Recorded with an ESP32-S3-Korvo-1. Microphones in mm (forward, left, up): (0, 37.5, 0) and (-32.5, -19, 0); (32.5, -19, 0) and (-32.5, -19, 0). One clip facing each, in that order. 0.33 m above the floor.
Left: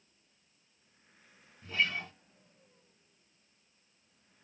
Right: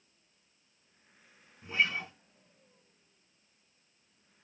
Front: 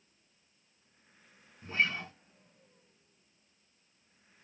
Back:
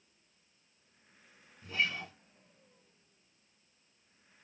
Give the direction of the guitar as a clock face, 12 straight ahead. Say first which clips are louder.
Right 2 dB, front 3 dB; 2 o'clock.